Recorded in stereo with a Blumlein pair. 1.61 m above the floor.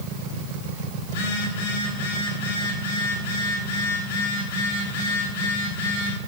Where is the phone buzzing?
60° left, 5 m.